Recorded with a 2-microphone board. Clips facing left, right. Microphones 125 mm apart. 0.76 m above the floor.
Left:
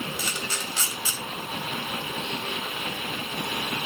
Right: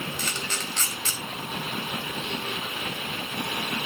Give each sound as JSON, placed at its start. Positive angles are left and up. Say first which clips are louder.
{"t": 0.2, "sound": "a camera shutter", "louder": "even", "side_deg": 10, "distance_m": 2.0}